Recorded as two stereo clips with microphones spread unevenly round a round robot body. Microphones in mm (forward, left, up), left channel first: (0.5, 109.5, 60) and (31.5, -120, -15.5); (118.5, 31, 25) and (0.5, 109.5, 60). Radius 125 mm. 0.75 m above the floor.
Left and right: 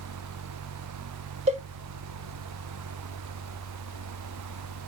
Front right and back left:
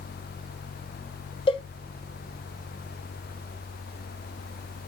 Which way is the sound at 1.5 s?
50° right.